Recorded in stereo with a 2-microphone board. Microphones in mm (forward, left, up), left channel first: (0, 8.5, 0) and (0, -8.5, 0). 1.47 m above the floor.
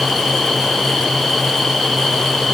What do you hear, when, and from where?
Only background noise.